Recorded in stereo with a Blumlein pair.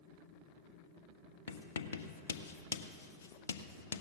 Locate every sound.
1.5 s writing: 65° left, 0.7 m